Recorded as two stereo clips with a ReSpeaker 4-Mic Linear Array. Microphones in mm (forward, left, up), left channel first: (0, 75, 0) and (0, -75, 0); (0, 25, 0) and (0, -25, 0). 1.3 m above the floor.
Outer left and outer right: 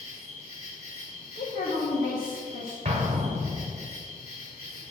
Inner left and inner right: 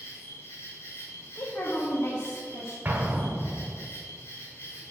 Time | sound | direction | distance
0.0 | an insect | 70° left (ahead or behind) | 3 m
1.4 | a woman speaking | 75° left (ahead or behind) | 1.6 m
2.9 | an explosion | 45° right (ahead or behind) | 1.5 m